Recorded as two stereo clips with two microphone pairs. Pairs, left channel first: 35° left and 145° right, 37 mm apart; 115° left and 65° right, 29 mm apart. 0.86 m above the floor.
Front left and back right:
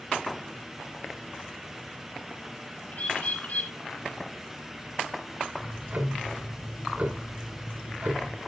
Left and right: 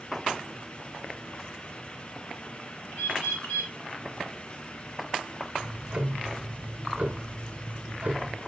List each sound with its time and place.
2.9 s a bird: 80° left, 5.5 m
5.6 s ticking: 110° right, 2 m